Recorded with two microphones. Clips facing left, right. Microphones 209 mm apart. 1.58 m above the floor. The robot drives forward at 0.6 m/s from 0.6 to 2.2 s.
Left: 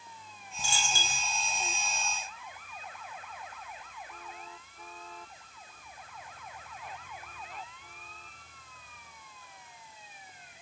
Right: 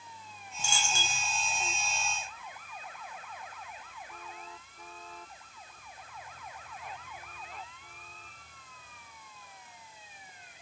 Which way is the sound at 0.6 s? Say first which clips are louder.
Even; 40° left (ahead or behind).